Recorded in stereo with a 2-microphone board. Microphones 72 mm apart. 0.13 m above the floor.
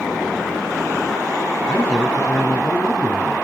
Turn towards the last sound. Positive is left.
turn(degrees=10)  # may be behind; listen again after turning